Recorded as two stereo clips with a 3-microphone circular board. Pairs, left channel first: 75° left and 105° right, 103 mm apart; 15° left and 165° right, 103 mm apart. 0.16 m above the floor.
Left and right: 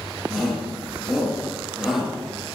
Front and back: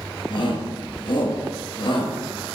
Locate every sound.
0.3 s a shout: 15° right, 3 m